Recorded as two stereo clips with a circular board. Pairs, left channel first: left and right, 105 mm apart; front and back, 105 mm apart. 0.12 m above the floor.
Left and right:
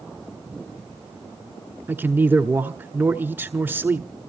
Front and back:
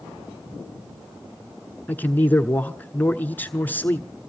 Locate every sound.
1.9 s a man speaking: 50° right, 1.1 m